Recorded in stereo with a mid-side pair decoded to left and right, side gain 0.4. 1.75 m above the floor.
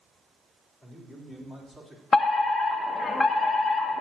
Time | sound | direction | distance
0.8 | a man speaking | 15° left | 4.5 m
2.1 | a fire alarm | 50° left | 1.2 m